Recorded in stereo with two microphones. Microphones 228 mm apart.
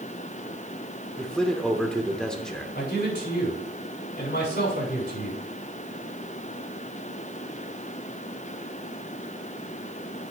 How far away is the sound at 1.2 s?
About 1.1 m.